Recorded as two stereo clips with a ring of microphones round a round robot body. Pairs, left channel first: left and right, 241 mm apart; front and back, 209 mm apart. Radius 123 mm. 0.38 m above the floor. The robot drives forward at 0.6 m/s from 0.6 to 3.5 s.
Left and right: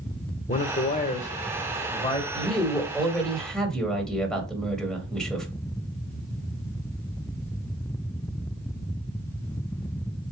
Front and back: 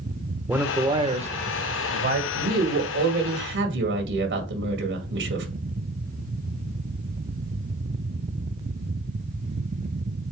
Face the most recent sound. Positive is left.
turn(degrees=175)